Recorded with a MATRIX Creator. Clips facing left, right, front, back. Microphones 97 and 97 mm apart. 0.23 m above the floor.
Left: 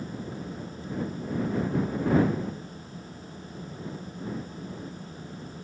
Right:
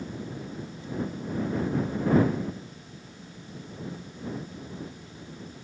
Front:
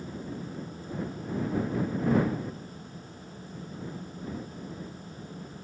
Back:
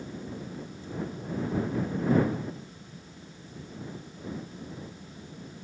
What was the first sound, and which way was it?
Only background noise.